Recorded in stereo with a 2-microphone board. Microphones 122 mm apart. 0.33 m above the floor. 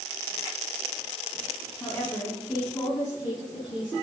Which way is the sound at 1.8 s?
20° left (ahead or behind).